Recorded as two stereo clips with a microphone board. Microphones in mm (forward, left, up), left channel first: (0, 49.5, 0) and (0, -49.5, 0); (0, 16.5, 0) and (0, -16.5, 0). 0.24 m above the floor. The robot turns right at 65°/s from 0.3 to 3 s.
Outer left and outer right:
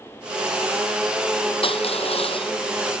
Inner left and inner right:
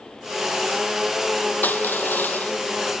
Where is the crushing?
65° left; by 2.5 s 125° left.